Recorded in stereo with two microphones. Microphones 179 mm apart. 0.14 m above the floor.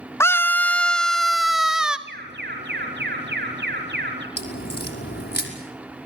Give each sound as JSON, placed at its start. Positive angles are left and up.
{"t": 0.2, "sound": "a scream", "side_deg": 15, "distance_m": 1.1}
{"t": 2.1, "sound": "an alarm", "side_deg": -70, "distance_m": 5.5}
{"t": 4.4, "sound": "a crack", "side_deg": 65, "distance_m": 5.5}